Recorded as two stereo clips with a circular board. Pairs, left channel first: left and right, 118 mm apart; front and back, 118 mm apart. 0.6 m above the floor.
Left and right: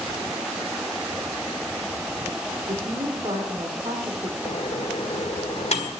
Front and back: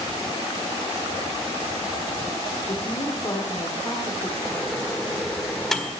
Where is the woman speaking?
55° right, 2.0 m.